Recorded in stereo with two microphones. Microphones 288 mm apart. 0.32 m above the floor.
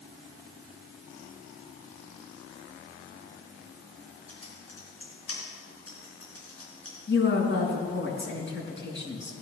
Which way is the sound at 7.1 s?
40° left (ahead or behind).